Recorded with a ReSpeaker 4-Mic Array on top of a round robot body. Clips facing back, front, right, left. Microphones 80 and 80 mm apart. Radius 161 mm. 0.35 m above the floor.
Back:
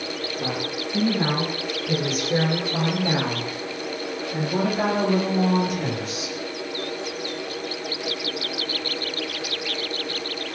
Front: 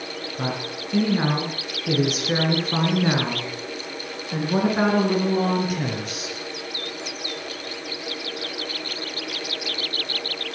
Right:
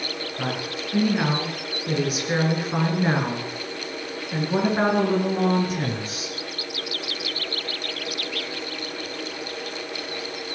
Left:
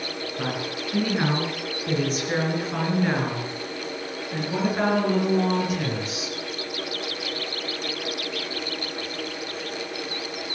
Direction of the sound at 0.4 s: Straight ahead.